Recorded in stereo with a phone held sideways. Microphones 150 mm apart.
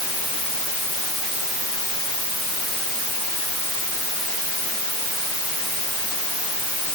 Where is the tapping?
I don't hear tapping.